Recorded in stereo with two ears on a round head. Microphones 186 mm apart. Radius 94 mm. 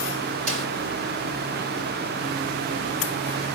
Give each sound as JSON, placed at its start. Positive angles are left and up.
{"t": 0.5, "sound": "a snare drum", "side_deg": -65, "distance_m": 3.0}